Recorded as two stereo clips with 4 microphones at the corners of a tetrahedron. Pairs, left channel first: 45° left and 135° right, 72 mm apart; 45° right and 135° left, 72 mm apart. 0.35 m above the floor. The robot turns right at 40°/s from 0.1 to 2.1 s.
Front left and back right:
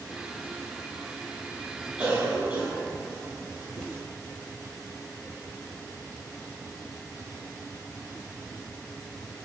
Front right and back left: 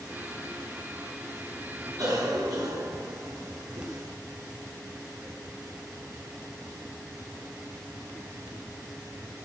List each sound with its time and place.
2.0 s a cough: 145° left, 2.5 m; by 4.0 s 150° left, 2.5 m